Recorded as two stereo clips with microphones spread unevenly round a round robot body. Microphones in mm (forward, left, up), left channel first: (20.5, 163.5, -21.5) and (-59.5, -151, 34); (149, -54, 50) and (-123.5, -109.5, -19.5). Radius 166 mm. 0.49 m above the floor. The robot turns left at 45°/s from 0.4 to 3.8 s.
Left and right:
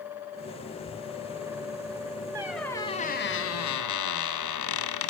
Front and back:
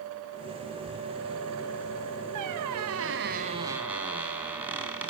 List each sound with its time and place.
2.4 s a squeak: 175° left, 1.9 m; by 5.1 s 110° left, 1.9 m